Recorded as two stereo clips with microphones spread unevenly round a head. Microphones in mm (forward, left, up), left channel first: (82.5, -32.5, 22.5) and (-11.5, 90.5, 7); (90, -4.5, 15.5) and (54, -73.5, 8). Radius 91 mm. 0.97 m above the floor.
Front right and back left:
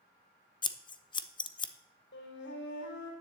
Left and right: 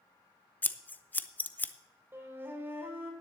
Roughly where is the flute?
Ahead right.